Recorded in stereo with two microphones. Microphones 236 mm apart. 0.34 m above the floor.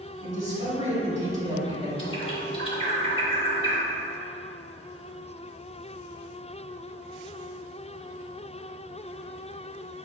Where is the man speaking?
30° right (ahead or behind), 1.8 m.